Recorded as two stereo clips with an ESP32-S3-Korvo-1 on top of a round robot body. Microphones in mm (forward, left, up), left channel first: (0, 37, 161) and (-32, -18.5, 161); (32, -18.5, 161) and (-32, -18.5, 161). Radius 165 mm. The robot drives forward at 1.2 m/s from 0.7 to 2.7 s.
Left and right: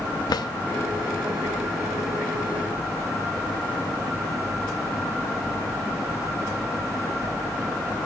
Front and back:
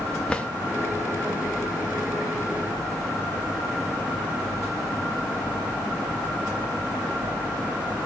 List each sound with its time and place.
0.3 s a drawer: 75° left, 0.9 m